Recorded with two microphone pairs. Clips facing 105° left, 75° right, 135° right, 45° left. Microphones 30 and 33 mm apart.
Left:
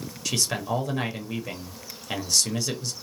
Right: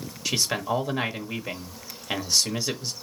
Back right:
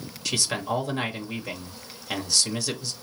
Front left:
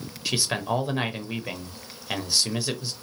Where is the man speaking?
15° right, 0.9 m.